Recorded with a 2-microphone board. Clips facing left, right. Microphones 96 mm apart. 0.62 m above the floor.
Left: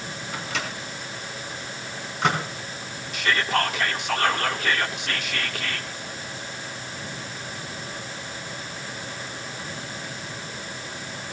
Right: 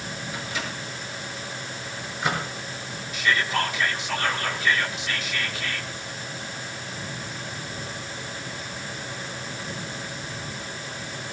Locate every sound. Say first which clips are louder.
0.3 s a microwave: left 3 dB; 75° left (ahead or behind), 4 m
3.1 s whispering: left 1 dB; 55° left (ahead or behind), 1.4 m